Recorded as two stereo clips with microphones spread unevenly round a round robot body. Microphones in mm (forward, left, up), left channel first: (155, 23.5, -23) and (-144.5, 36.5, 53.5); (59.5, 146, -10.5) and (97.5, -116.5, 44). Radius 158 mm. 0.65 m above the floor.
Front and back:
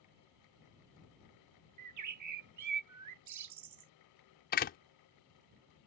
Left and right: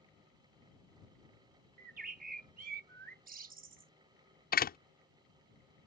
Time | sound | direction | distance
1.8 | a bird | 145° right | ?
4.5 | a door slam | 50° left | ?